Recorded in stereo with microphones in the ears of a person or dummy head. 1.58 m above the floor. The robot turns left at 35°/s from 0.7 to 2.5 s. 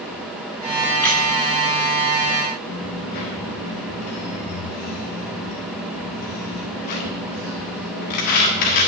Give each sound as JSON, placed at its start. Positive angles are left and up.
{"t": 1.0, "sound": "a squeak", "side_deg": 10, "distance_m": 0.8}
{"t": 2.7, "sound": "a dropped coin", "side_deg": 35, "distance_m": 1.5}